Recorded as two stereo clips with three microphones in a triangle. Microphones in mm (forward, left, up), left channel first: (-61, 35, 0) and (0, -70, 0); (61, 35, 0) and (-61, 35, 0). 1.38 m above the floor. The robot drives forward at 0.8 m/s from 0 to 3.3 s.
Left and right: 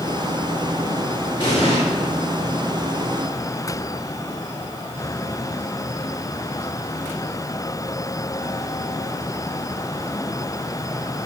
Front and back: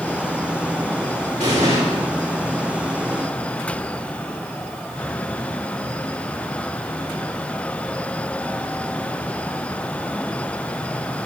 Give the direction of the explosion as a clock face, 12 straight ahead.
7 o'clock.